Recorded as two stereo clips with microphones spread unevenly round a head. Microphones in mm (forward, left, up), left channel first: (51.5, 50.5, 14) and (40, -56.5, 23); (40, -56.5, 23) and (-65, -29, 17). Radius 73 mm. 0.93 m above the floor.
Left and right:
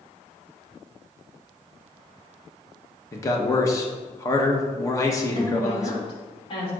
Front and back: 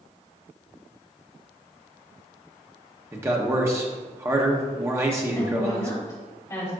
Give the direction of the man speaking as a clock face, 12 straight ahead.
8 o'clock.